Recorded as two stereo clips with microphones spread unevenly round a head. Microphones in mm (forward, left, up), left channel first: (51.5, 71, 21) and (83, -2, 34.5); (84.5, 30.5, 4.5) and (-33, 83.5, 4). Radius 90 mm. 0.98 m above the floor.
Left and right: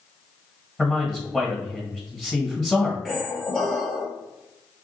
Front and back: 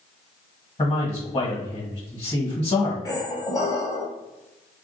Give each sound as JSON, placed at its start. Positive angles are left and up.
{"t": 0.8, "sound": "a man speaking", "azimuth_deg": 25, "distance_m": 1.3}
{"t": 3.0, "sound": "a squeak", "azimuth_deg": 15, "distance_m": 1.1}